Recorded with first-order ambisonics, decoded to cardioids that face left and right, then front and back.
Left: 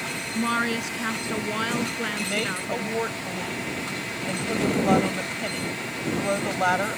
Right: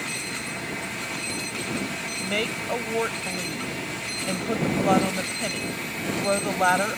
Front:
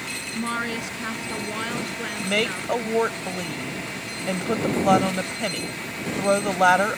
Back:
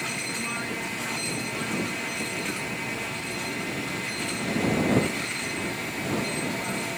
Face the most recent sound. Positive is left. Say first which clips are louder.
# even, front 7 dB
turn(degrees=-10)